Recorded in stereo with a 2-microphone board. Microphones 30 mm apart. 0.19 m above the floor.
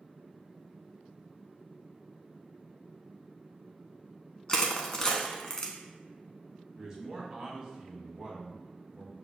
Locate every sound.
4.5 s crushing: 20° left (ahead or behind), 0.6 m
6.8 s a man speaking: 15° right (ahead or behind), 1.1 m